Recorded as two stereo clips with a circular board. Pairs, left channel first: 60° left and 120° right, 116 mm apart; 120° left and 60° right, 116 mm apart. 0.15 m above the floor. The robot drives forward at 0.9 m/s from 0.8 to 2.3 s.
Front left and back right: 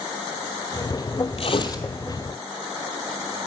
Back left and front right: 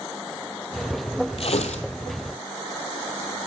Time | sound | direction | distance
1.4 | tearing paper | 90° left | 0.8 m